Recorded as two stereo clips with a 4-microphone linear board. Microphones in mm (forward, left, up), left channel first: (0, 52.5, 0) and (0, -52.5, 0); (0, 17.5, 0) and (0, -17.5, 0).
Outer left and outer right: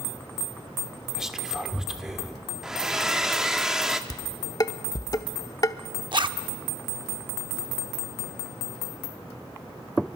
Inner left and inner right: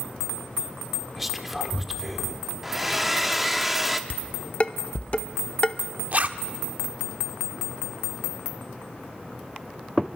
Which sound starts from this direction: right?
A zipper, at 6.1 s.